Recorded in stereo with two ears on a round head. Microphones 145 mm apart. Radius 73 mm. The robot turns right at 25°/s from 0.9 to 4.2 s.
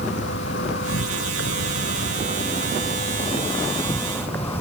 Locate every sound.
0.0 s an insect: 85° left; by 4.6 s 165° left